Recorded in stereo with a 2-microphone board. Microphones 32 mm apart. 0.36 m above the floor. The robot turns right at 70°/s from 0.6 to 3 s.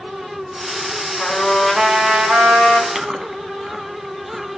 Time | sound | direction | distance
1.2 | a trumpet | 160° left | 3 m
3.0 | chewing | 10° right (ahead or behind) | 1.2 m